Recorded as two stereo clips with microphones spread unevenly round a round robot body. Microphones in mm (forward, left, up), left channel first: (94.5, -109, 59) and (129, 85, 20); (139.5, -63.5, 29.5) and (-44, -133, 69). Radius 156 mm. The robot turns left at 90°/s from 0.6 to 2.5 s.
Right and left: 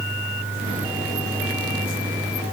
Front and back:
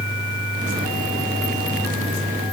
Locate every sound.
Only background noise.